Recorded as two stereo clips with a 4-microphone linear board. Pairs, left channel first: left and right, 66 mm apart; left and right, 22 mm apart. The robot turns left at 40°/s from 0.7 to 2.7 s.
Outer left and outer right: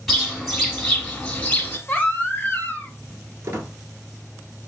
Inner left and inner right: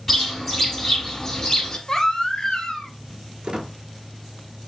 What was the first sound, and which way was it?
A bird, 175° left.